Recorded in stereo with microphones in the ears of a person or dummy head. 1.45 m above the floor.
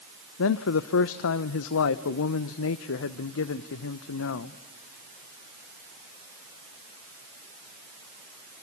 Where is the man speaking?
75° left (ahead or behind), 0.8 m.